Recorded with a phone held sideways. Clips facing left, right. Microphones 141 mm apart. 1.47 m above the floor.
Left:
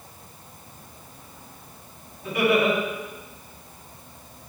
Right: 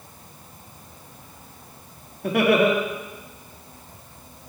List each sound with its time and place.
2.2 s laughter: 70° right (ahead or behind), 4 m